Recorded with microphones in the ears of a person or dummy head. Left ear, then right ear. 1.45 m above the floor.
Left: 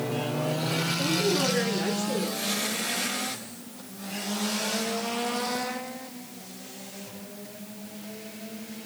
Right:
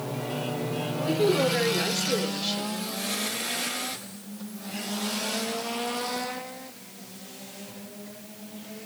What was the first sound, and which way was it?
A woman speaking, 25° right (ahead or behind).